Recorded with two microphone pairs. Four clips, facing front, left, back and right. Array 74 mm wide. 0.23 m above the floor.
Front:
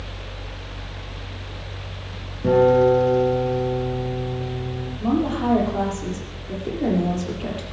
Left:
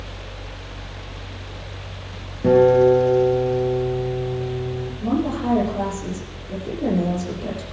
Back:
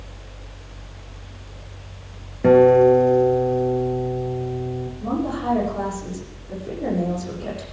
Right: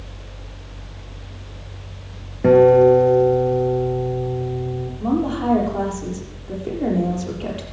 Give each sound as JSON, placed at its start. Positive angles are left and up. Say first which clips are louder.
{"t": 2.4, "sound": "a guitar", "louder": "right 2 dB, back 3 dB", "azimuth_deg": -130, "distance_m": 2.5}
{"t": 5.0, "sound": "a woman speaking", "louder": "right 2 dB, front 4 dB", "azimuth_deg": -60, "distance_m": 7.5}